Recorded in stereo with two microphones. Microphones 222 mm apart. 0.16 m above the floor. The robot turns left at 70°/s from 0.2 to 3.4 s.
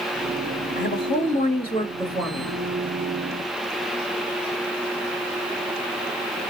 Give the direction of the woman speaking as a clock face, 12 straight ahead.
9 o'clock.